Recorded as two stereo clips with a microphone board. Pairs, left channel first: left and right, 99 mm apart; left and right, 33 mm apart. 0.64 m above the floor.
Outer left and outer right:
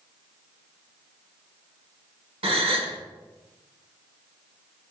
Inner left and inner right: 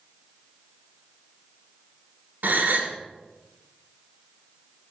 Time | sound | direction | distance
2.4 | a gasp | 80° right | 1.0 m